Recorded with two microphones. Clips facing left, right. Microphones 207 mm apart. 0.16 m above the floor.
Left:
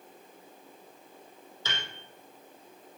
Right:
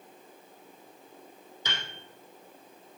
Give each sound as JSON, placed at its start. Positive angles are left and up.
{"t": 1.6, "sound": "a piano", "side_deg": -15, "distance_m": 3.5}